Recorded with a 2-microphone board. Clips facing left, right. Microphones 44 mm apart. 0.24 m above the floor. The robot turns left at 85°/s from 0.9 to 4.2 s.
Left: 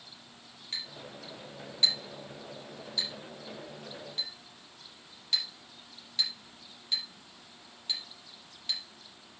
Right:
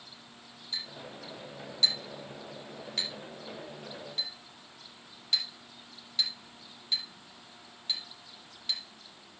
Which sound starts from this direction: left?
A clink, at 0.7 s.